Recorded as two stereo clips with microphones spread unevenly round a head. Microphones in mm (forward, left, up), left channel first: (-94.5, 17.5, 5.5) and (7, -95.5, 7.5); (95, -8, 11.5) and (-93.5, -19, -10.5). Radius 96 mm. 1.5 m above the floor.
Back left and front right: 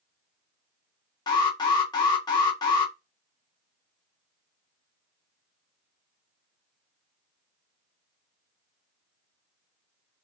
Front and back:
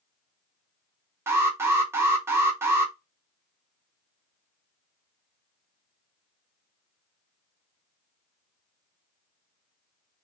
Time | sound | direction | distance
1.3 | an alarm | 105° left | 0.6 m